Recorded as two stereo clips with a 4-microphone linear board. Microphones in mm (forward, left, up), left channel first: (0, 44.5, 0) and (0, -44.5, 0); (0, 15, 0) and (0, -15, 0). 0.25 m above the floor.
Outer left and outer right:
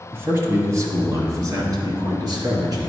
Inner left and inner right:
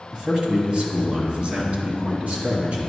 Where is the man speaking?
30° right (ahead or behind), 1.3 m; by 2.9 s 45° right (ahead or behind), 2.5 m.